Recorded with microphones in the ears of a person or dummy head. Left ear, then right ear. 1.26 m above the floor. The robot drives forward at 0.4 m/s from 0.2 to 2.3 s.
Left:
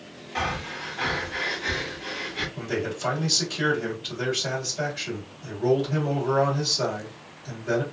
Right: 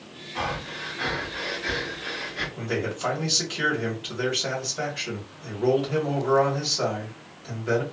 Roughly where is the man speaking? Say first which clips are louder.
Right 1 dB; right.